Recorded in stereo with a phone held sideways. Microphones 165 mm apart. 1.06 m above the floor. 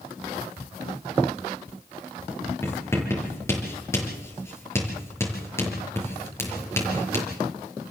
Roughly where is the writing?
Centre.